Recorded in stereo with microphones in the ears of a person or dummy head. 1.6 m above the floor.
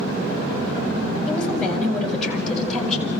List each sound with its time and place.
1.3 s a woman speaking: 5° left (ahead or behind), 8 m; by 3.1 s centre (ahead or behind), 10 m